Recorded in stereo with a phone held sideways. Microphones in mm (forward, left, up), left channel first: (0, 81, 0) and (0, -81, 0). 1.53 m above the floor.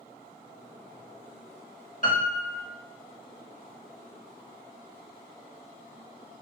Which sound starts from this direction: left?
A piano, at 2.0 s.